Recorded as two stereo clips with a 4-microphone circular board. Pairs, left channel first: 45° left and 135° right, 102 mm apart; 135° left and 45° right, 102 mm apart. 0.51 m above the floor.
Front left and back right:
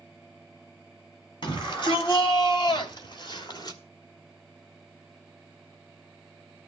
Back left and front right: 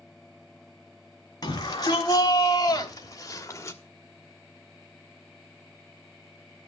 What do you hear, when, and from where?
1.4 s a shout: 85° left, 5 m; by 3.8 s 75° left, 1.8 m